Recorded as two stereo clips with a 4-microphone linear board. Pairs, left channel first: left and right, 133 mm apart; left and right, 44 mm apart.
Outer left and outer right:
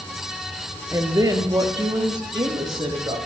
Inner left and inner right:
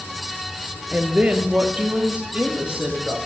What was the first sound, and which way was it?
A woman speaking, 25° right (ahead or behind).